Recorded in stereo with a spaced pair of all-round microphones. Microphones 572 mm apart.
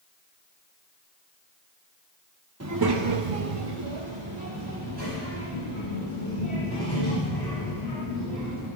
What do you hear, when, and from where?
2.6 s a child speaking: 25° right (ahead or behind), 0.8 m; by 8.7 s 30° right (ahead or behind), 5.5 m